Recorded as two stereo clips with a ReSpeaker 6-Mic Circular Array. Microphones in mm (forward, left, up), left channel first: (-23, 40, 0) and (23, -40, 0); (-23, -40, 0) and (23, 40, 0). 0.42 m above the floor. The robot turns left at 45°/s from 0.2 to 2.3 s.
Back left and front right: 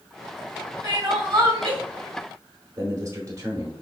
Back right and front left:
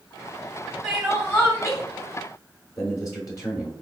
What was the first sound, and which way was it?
Crying, 25° right.